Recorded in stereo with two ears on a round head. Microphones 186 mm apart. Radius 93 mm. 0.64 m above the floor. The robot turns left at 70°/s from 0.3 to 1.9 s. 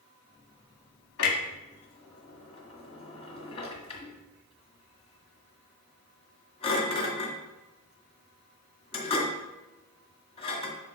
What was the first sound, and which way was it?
A clunk, 75° left (ahead or behind).